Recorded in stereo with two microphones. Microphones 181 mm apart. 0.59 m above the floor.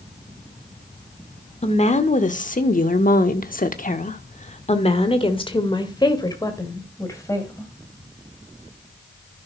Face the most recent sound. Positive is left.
turn(degrees=15)  # may be behind; listen again after turning